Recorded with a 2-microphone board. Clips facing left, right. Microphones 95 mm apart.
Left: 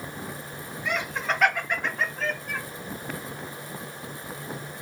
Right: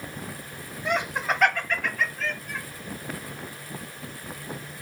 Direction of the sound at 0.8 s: 30° right (ahead or behind).